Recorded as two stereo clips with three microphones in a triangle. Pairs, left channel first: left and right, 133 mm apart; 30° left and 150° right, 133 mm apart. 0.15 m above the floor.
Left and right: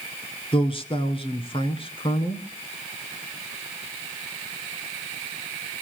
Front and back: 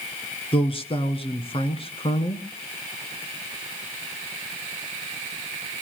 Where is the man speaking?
60° left, 1.9 m.